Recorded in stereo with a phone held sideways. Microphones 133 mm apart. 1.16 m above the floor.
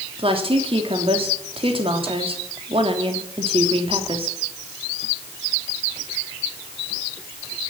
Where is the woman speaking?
50° right (ahead or behind), 3 m.